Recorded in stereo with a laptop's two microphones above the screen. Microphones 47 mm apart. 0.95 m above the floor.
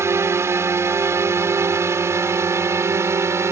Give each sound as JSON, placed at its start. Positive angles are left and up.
{"t": 0.0, "sound": "a drone", "side_deg": -65}